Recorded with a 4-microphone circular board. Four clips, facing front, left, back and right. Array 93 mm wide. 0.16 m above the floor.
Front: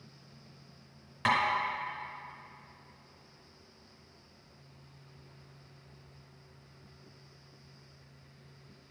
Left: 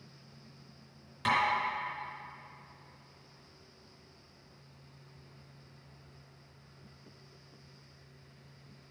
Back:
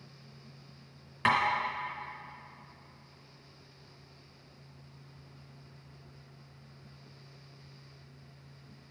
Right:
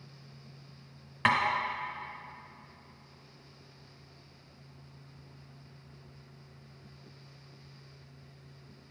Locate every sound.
1.2 s tapping: 100° right, 1.5 m